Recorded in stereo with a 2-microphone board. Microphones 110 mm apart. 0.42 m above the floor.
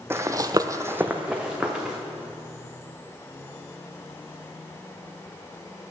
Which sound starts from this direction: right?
Running footsteps, at 0.1 s.